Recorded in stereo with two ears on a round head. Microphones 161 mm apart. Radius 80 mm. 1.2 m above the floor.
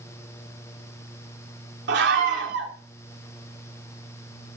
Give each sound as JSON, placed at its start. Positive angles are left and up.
{"t": 1.9, "sound": "a scream", "side_deg": -65, "distance_m": 3.0}